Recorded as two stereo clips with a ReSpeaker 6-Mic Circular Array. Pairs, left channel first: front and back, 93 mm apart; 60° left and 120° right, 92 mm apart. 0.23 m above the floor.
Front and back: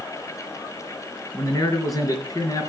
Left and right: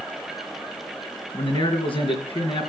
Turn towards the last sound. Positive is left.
turn(degrees=50)